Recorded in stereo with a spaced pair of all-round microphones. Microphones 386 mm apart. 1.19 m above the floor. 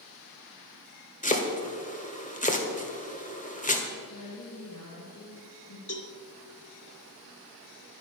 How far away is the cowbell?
About 1.3 m.